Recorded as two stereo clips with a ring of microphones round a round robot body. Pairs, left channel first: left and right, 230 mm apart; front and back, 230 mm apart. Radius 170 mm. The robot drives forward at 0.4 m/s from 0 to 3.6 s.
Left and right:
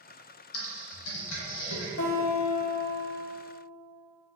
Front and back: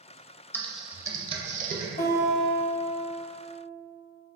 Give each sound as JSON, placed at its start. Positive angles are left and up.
{"t": 0.5, "sound": "typing on a keyboard", "azimuth_deg": 80, "distance_m": 0.6}
{"t": 2.0, "sound": "a guitar", "azimuth_deg": 60, "distance_m": 1.1}